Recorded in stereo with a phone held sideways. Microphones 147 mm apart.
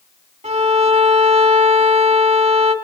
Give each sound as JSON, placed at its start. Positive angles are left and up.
{"t": 0.4, "sound": "a violin", "side_deg": -45, "distance_m": 1.3}